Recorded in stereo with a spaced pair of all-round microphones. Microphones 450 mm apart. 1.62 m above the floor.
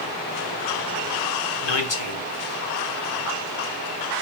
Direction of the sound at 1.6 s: 85° left.